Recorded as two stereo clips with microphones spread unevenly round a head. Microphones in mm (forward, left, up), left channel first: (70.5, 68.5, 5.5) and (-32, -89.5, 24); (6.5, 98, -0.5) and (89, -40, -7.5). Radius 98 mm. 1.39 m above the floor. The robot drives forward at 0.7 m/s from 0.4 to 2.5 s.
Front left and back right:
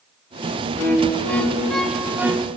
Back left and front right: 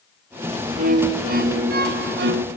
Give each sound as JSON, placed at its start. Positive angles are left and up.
{"t": 0.8, "sound": "a violin", "azimuth_deg": -20, "distance_m": 1.9}